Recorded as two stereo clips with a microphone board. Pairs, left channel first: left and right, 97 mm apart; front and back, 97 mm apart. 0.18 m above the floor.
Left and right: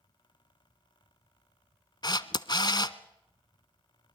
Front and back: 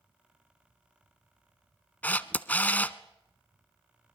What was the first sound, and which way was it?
A camera shutter, 70° left.